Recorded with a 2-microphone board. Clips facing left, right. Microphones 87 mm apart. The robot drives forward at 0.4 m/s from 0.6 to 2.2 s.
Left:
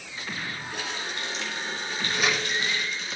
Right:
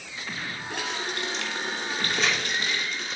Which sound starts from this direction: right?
A running tap, at 0.7 s.